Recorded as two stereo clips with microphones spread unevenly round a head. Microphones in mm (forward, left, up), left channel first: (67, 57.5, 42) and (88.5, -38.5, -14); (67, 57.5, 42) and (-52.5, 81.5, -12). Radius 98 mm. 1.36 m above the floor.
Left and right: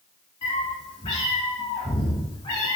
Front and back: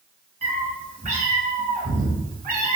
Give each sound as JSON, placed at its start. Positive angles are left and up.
{"t": 0.4, "sound": "a cat meowing", "azimuth_deg": 125, "distance_m": 3.5}